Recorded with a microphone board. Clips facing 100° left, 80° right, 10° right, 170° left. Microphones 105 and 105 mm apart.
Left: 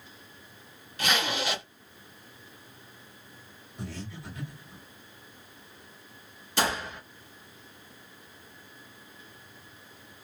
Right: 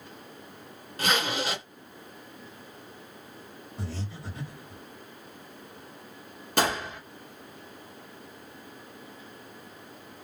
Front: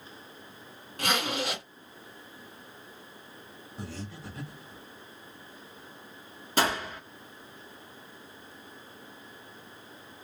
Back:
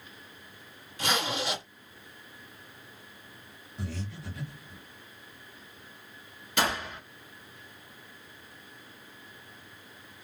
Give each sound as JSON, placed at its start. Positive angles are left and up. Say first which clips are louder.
{"t": 1.0, "sound": "a zipper", "louder": "right 1 dB, front 1 dB", "azimuth_deg": -40, "distance_m": 2.0}
{"t": 3.8, "sound": "breathing", "louder": "right 1 dB, back 1 dB", "azimuth_deg": -45, "distance_m": 1.3}
{"t": 6.6, "sound": "a gunshot", "louder": "right 2 dB, front 2 dB", "azimuth_deg": -60, "distance_m": 1.1}